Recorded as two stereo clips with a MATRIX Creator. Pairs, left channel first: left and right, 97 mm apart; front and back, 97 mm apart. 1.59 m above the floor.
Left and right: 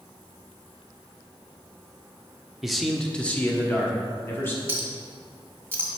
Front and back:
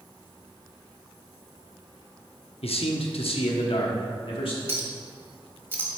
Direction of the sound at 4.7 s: 135° right.